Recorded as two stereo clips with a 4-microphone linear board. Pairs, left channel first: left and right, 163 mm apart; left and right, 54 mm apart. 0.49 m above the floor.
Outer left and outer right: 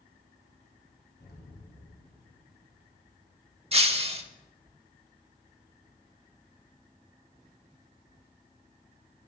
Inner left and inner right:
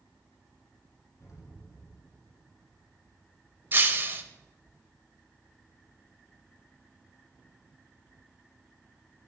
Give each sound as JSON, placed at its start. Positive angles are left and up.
{"t": 1.2, "sound": "an explosion", "side_deg": 75, "distance_m": 2.0}
{"t": 3.7, "sound": "breaking glass", "side_deg": -35, "distance_m": 0.8}